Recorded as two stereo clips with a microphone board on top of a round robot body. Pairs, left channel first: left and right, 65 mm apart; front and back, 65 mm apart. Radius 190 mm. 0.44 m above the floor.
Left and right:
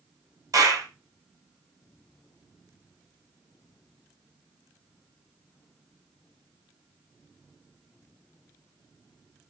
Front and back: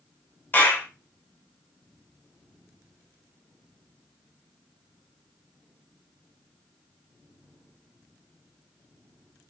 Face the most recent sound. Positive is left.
turn(degrees=-65)